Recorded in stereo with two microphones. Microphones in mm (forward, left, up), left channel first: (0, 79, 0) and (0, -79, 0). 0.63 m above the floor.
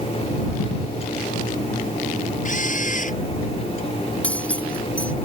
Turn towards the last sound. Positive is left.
turn(degrees=10)  # may be behind; listen again after turning